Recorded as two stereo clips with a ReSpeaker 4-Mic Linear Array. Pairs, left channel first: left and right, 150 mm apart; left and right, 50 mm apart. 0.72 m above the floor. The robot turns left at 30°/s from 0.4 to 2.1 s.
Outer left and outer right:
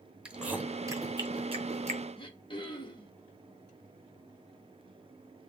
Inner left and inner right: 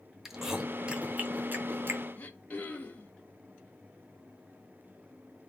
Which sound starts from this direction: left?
Throat clearing, at 2.2 s.